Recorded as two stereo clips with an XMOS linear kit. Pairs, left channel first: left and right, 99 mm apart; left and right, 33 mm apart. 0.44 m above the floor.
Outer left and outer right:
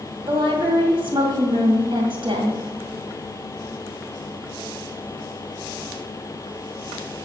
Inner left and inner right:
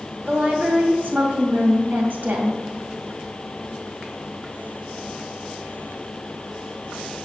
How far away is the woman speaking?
About 2 m.